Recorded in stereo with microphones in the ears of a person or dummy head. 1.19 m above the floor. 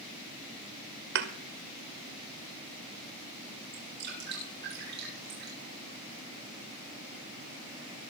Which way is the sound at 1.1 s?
55° right (ahead or behind).